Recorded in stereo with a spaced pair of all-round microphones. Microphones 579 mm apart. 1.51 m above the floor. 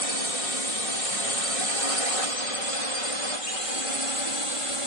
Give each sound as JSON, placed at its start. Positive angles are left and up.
{"t": 0.0, "sound": "a drone", "side_deg": 70}